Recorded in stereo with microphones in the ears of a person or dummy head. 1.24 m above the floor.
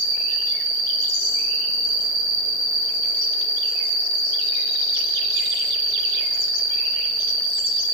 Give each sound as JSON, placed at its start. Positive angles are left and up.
{"t": 0.0, "sound": "an insect", "side_deg": -30, "distance_m": 1.7}